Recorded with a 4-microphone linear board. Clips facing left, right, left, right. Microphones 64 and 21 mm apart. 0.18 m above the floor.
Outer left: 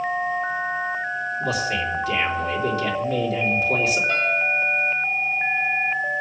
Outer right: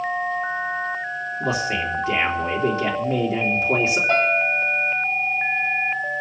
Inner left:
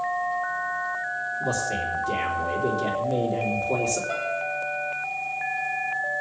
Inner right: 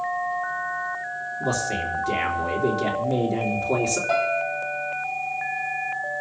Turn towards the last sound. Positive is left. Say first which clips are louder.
# outer right 2 dB, inner right 5 dB
turn(degrees=-45)  # may be behind; listen again after turning